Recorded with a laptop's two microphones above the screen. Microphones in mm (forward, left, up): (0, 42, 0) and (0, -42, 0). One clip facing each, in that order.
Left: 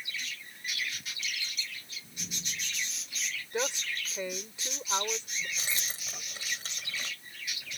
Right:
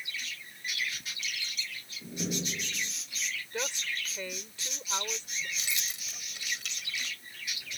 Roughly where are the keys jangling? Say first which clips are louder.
Left 1 dB; left.